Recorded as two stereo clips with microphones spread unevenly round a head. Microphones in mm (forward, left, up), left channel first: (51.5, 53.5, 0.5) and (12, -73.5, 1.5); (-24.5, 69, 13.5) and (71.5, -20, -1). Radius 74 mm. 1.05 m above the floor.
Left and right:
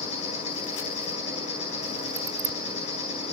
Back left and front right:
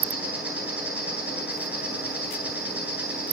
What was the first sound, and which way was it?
An insect, 35° left.